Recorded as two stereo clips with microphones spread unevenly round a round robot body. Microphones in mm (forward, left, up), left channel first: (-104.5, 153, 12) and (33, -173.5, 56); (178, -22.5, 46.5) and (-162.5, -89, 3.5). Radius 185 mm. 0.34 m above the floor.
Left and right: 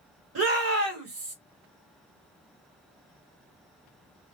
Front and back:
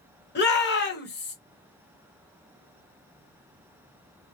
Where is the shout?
35° right, 1.4 m.